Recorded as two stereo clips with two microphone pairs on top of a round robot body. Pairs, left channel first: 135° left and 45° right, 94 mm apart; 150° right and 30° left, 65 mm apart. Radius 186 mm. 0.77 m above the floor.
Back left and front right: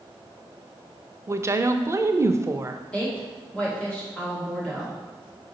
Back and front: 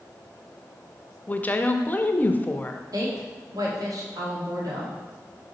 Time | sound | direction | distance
1.3 | a woman speaking | 100° right | 0.7 m
2.9 | a woman speaking | 55° left | 1.7 m